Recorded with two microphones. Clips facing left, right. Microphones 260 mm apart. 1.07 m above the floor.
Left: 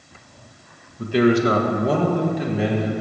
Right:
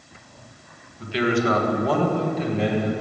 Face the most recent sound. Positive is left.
turn(degrees=5)  # may be behind; listen again after turning